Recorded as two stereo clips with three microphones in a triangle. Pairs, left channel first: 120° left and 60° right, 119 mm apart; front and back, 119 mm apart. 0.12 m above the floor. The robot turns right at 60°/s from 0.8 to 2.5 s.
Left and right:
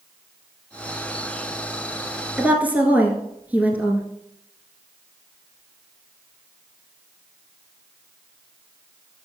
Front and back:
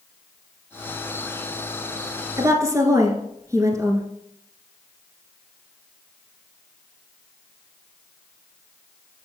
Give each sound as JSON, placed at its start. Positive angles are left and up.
{"t": 2.4, "sound": "a woman speaking", "azimuth_deg": -140, "distance_m": 1.3}